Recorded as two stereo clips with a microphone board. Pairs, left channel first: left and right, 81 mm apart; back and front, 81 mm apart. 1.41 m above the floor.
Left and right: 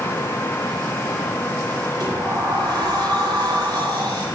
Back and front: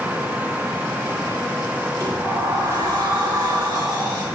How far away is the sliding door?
About 9 m.